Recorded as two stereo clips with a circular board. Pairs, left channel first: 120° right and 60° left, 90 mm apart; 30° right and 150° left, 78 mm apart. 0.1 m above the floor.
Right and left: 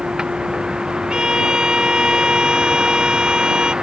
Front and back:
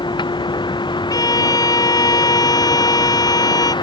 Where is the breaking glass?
No breaking glass in this recording.